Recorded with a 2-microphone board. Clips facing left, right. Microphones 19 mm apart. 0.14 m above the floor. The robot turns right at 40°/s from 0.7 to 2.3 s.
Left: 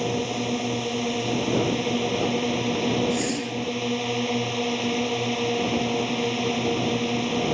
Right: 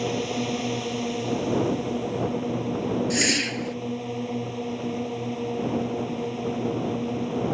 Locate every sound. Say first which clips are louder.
0.0 s a drone: left 1 dB; 10° left; by 7.5 s 75° left
3.1 s a whoosh: right 3 dB; 55° right (ahead or behind)